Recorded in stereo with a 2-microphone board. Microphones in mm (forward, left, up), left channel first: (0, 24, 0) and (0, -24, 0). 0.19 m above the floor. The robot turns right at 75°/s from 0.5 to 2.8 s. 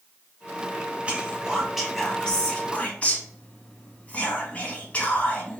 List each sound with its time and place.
1.1 s whispering: 25° right (ahead or behind), 1.2 m; by 5.6 s 25° left (ahead or behind), 1.2 m